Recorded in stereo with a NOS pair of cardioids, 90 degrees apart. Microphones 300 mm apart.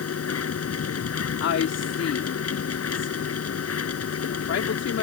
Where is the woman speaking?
55° left.